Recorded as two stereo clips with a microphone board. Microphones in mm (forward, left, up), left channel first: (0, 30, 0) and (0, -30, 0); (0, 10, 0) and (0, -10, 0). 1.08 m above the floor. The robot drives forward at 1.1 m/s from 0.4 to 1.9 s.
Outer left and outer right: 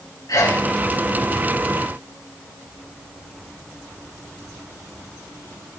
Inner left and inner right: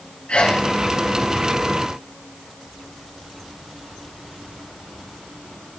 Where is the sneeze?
85° left, 3 m.